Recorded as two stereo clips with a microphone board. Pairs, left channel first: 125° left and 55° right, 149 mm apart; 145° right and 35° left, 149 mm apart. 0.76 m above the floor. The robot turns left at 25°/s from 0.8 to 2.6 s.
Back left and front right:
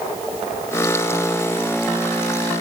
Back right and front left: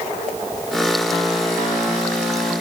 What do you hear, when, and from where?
Only background noise.